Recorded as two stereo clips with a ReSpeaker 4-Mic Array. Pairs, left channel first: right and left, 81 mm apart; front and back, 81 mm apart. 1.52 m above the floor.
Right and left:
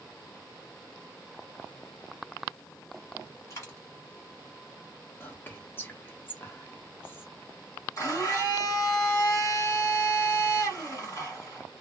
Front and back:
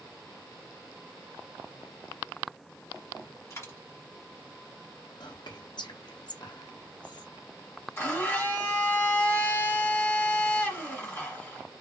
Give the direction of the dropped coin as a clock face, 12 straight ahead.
2 o'clock.